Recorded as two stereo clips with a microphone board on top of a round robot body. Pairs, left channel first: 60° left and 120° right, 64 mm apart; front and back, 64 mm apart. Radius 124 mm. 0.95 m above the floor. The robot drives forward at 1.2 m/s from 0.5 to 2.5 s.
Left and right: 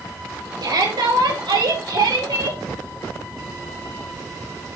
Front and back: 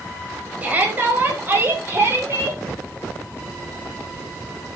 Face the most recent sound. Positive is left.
turn(degrees=-130)